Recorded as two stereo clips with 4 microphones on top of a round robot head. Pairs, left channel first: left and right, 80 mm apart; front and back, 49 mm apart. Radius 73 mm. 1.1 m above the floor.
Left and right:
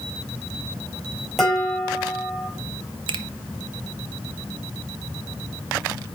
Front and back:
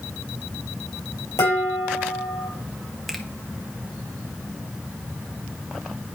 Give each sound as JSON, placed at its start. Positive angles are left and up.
{"t": 1.4, "sound": "dishes clattering", "azimuth_deg": 0, "distance_m": 6.0}
{"t": 3.1, "sound": "a finger snap", "azimuth_deg": -85, "distance_m": 0.7}